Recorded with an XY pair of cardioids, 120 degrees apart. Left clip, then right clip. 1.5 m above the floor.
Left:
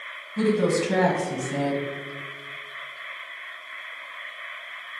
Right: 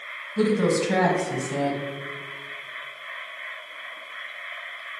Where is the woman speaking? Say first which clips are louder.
Even; 10° right, 1.0 m.